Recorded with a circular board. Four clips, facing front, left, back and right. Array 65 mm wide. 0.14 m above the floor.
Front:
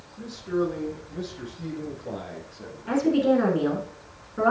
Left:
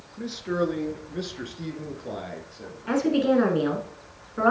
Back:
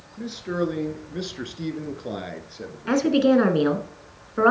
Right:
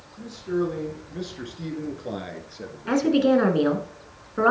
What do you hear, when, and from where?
0.2 s a man speaking: 135° left, 1.8 m; by 3.2 s 135° right, 2 m
2.9 s a woman speaking: 160° right, 1.4 m